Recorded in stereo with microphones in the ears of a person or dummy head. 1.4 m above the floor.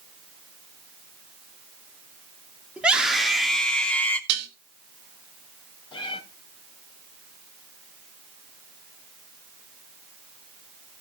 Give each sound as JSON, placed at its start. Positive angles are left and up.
{"t": 2.8, "sound": "a scream", "side_deg": -5, "distance_m": 3.0}
{"t": 4.3, "sound": "dishes clattering", "side_deg": -65, "distance_m": 2.0}
{"t": 5.9, "sound": "a cat meowing", "side_deg": 30, "distance_m": 3.0}